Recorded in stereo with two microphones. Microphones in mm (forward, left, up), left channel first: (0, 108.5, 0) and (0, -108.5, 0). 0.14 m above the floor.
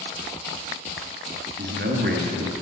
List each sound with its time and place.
1.6 s a man speaking: 50° right (ahead or behind), 1.9 m